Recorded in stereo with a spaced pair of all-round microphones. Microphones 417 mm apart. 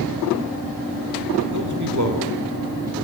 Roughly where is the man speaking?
Right.